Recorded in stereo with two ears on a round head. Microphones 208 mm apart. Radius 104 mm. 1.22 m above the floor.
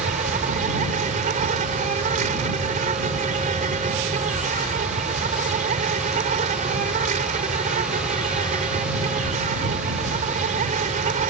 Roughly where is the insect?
Right.